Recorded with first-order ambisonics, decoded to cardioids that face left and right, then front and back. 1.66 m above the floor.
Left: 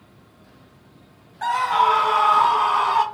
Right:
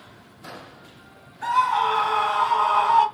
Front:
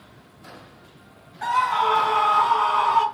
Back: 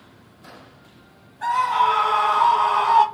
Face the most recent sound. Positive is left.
turn(degrees=125)